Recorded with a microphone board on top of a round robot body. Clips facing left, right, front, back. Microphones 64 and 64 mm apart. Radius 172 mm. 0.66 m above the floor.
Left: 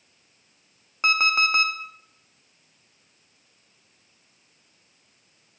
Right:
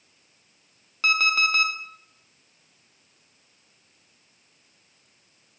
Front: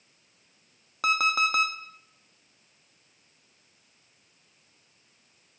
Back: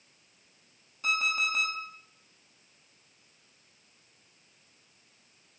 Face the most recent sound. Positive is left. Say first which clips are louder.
# left 1 dB, front 5 dB
turn(degrees=20)